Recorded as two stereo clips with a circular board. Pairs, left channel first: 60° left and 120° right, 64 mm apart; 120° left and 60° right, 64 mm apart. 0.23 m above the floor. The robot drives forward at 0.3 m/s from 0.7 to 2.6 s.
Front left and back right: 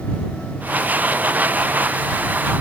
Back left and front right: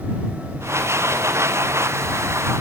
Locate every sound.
Only background noise.